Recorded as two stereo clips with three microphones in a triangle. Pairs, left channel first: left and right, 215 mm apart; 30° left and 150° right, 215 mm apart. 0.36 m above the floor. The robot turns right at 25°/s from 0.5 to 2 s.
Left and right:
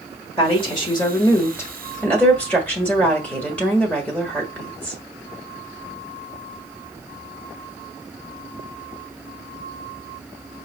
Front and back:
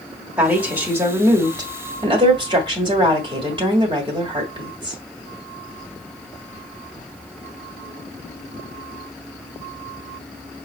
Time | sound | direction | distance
0.4 | a woman speaking | 130° left | 1.3 m